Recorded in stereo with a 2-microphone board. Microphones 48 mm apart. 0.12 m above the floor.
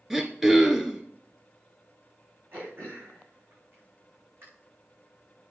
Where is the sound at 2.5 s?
50° right (ahead or behind), 7 m.